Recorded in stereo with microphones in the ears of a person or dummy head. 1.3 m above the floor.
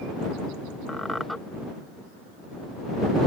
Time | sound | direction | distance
0.9 | a squeak | centre (ahead or behind) | ?